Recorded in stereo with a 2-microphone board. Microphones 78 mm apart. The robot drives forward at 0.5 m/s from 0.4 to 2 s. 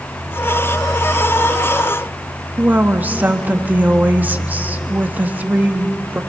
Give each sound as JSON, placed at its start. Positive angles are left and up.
{"t": 2.6, "sound": "a woman speaking", "side_deg": -25, "distance_m": 1.4}